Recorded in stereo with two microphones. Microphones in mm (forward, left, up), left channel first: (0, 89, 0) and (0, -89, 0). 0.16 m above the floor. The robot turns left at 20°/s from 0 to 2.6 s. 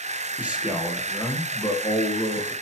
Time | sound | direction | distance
0.4 | a man speaking | 170° right | 4.5 m